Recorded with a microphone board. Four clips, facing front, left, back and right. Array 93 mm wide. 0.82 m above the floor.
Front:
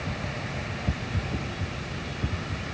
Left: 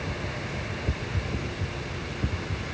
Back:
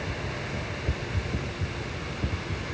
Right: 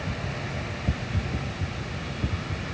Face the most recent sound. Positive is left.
No sound to turn to.